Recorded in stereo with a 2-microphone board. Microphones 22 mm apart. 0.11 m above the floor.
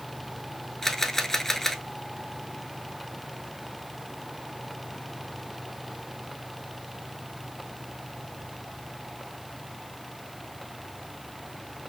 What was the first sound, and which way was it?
A camera shutter, 15° left (ahead or behind).